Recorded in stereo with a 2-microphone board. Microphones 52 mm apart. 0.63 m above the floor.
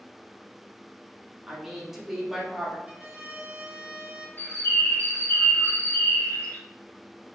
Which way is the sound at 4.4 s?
50° left (ahead or behind).